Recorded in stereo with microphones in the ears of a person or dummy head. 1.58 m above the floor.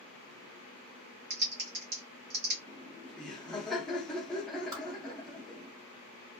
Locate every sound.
1.3 s typing on a keyboard: 50° right (ahead or behind), 0.7 m
2.7 s laughter: 5° left (ahead or behind), 0.6 m
4.7 s a whoosh: 25° right (ahead or behind), 1.4 m